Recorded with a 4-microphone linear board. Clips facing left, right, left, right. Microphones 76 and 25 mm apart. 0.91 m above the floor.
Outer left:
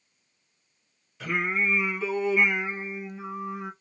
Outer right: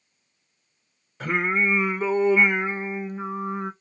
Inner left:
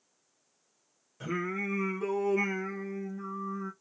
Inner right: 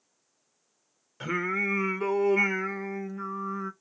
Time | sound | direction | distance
1.2 | singing | 40° right (ahead or behind) | 0.8 m